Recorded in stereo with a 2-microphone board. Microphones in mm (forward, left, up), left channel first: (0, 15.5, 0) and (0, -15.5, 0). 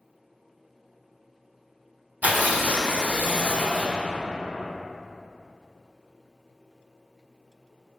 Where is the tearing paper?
65° right (ahead or behind), 0.9 m.